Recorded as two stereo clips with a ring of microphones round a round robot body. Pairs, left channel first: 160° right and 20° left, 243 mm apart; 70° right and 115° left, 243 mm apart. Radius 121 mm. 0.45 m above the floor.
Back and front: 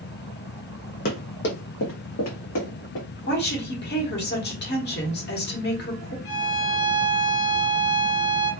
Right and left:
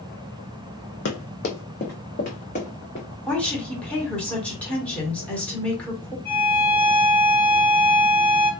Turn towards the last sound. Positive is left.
turn(degrees=-150)